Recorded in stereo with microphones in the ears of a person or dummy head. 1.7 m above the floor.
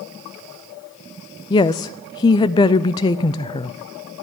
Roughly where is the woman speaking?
Centre.